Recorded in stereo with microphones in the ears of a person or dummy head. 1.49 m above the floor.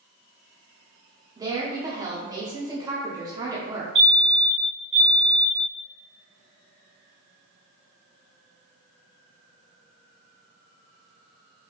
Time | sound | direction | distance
1.4 | a woman speaking | 15° right (ahead or behind) | 0.5 m
4.0 | a fire alarm | 30° right (ahead or behind) | 1.6 m